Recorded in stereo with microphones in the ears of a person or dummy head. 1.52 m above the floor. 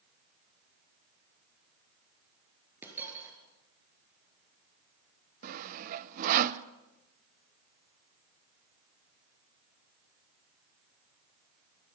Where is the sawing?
50° right (ahead or behind), 0.8 m.